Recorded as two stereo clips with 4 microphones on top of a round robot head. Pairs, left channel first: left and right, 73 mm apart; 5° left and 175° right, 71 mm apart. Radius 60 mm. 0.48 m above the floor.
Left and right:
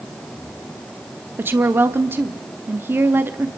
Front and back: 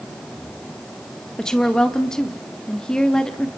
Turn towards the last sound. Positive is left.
turn(degrees=-65)